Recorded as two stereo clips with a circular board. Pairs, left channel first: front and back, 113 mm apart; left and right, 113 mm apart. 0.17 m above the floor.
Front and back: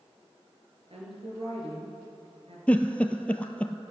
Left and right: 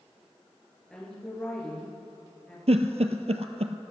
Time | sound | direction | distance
0.9 | a woman speaking | 170° left | 3.5 m
2.7 | a giggle | 80° right | 0.8 m